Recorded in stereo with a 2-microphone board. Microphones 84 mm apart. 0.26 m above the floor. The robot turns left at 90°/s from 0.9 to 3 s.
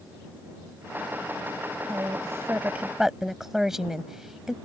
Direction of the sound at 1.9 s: 35° right (ahead or behind).